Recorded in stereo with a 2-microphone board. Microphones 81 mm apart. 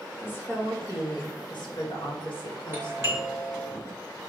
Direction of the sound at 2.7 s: 30° right (ahead or behind).